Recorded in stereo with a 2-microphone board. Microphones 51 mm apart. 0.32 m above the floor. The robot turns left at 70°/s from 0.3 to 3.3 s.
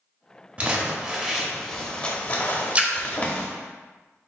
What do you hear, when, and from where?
0.6 s crumpling: 25° right (ahead or behind), 0.7 m; by 3.5 s 20° left (ahead or behind), 0.7 m
2.8 s a splash: 25° right (ahead or behind), 0.5 m; by 2.9 s 20° right (ahead or behind), 0.5 m